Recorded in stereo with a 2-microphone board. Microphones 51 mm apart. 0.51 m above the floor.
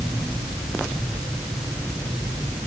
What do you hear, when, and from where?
Only background noise.